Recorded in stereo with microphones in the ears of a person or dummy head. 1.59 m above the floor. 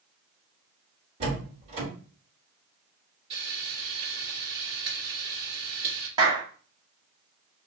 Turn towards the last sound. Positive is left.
turn(degrees=-25)  # may be behind; listen again after turning